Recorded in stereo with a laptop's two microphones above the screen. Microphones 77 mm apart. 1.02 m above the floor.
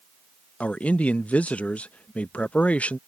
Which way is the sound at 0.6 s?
20° left (ahead or behind).